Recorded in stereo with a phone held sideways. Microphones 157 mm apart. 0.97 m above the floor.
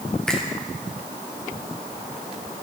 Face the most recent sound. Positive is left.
turn(degrees=5)  # may be behind; listen again after turning